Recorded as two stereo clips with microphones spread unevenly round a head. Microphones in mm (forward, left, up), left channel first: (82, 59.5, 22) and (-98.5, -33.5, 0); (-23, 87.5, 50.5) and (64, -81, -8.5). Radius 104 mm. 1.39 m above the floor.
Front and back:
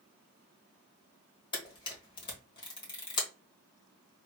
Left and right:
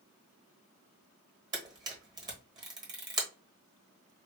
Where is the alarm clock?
No alarm clock in this recording.